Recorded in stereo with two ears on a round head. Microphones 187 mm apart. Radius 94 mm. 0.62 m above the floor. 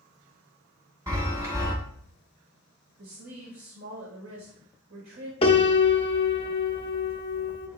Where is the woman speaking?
70° right (ahead or behind), 2 m.